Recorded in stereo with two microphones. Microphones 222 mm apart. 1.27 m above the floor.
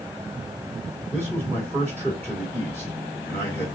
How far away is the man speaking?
About 2.5 m.